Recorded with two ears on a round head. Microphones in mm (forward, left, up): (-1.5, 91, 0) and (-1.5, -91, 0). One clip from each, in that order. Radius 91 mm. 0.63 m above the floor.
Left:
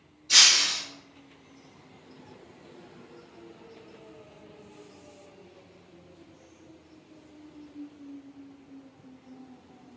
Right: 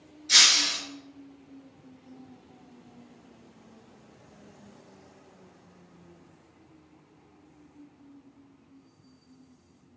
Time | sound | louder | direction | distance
0.3 | breaking glass | left 1 dB | 60° right (ahead or behind) | 1.9 m